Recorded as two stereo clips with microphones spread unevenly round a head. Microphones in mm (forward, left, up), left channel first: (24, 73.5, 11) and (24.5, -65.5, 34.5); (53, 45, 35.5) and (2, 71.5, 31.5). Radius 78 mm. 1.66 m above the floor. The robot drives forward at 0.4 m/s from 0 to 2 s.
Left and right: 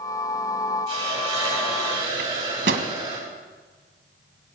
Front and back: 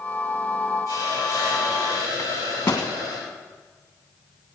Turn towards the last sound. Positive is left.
turn(degrees=-100)